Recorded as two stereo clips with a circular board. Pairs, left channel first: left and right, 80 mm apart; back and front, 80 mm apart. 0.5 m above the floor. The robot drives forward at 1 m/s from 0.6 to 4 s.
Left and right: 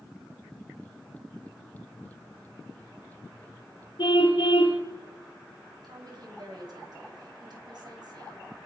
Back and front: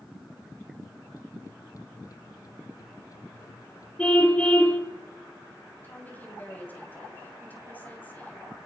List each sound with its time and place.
4.0 s a car horn: 105° left, 5.5 m
5.8 s a woman speaking: 115° right, 4 m